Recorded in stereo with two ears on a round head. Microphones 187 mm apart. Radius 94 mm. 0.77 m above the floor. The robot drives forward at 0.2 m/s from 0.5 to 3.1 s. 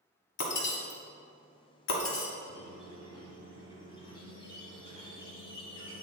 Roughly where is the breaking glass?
Left.